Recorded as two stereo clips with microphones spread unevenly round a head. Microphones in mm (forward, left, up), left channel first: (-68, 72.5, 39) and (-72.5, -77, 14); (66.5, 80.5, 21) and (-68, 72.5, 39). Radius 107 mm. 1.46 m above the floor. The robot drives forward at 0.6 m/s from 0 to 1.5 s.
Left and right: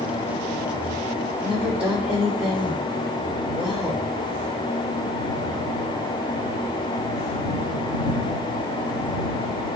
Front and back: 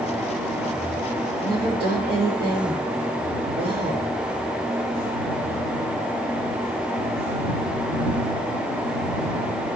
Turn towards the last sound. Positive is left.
turn(degrees=-170)